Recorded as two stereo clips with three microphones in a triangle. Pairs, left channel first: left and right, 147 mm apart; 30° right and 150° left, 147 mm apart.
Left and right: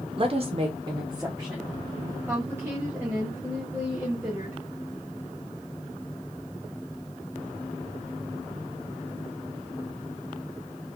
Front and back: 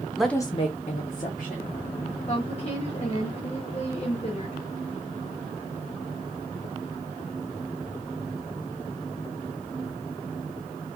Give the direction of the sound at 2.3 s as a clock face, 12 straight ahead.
1 o'clock.